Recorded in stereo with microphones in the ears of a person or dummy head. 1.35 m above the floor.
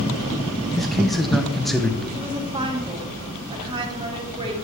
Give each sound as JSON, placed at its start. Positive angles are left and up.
{"t": 0.8, "sound": "a man speaking", "side_deg": 0, "distance_m": 0.9}
{"t": 2.1, "sound": "a woman speaking", "side_deg": -30, "distance_m": 2.5}